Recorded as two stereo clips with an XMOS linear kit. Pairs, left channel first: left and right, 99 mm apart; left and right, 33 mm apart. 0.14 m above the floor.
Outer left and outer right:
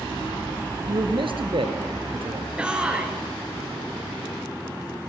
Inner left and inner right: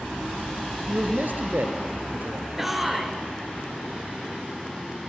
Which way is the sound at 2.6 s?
10° right (ahead or behind).